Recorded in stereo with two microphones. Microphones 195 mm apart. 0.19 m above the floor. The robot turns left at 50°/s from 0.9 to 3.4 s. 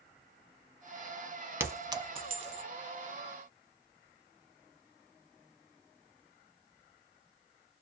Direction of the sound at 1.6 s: 10° right (ahead or behind).